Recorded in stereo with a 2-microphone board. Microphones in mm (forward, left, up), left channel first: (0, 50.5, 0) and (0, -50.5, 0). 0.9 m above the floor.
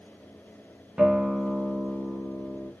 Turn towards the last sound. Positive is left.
turn(degrees=-5)  # may be behind; listen again after turning